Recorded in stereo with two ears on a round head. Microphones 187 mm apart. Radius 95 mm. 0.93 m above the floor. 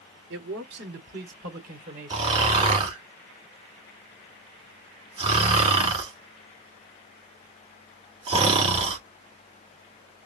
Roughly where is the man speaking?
Right.